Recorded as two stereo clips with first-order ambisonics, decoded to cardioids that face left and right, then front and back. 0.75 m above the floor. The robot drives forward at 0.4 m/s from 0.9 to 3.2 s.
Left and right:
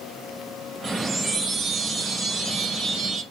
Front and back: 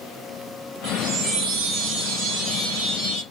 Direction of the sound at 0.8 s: 170° right.